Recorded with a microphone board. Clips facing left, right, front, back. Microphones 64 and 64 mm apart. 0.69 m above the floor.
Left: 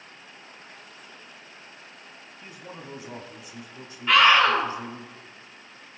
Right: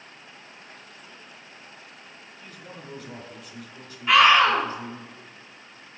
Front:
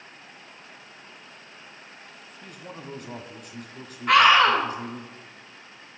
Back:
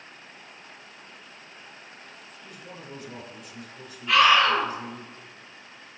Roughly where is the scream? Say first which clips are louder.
Right 1 dB, front 2 dB; ahead.